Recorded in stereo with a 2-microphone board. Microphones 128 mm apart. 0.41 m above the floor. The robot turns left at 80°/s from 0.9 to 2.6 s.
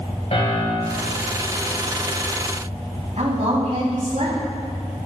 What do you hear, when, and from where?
0.3 s a piano: 55° left (ahead or behind), 2 m; by 1.2 s 50° left (ahead or behind), 2 m
3.2 s a woman speaking: 60° right (ahead or behind), 3 m